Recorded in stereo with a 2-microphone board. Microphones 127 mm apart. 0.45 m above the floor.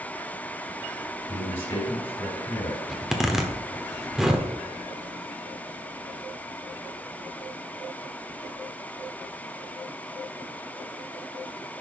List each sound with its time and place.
1.3 s a man speaking: 40° left (ahead or behind), 4 m
2.9 s a zipper: 5° right (ahead or behind), 1.0 m